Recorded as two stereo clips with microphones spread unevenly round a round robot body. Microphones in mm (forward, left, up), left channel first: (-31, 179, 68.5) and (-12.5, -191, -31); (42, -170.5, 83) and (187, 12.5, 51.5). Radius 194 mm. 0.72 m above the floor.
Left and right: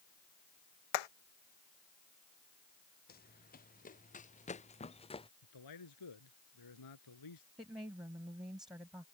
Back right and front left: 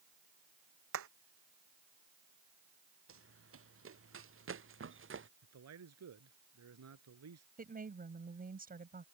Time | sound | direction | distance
0.9 | hammering | 100° left | ?
3.1 | running footsteps | 25° left | ?
5.4 | a man speaking | 55° left | ?
7.6 | a woman speaking | straight ahead | ?